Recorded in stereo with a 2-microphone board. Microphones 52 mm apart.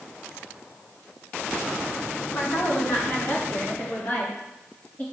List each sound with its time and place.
2.3 s a woman speaking: 55° left (ahead or behind), 3 m; by 5.0 s 35° left (ahead or behind), 4.5 m